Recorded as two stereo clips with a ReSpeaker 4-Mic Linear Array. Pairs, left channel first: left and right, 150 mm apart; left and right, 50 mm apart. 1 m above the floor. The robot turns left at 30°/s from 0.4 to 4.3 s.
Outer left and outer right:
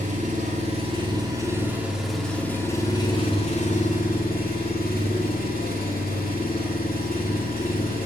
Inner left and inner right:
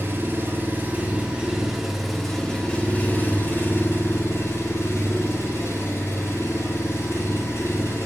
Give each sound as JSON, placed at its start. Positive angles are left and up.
{"t": 0.0, "sound": "an engine running", "azimuth_deg": -130, "distance_m": 2.0}